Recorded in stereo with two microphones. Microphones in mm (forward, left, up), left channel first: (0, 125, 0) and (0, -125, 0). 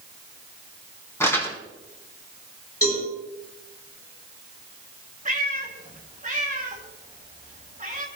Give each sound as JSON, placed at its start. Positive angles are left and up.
{"t": 1.2, "sound": "crumpling", "side_deg": 10, "distance_m": 2.5}
{"t": 2.8, "sound": "a cowbell", "side_deg": 65, "distance_m": 7.0}
{"t": 5.2, "sound": "a cat meowing", "side_deg": -30, "distance_m": 2.0}